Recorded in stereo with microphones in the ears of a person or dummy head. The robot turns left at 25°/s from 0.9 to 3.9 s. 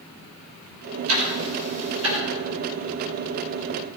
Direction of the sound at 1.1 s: 80° right.